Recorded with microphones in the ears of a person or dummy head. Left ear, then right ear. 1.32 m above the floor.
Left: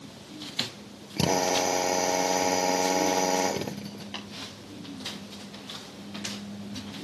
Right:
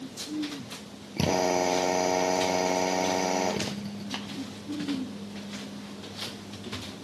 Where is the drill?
15° left (ahead or behind), 1.1 m.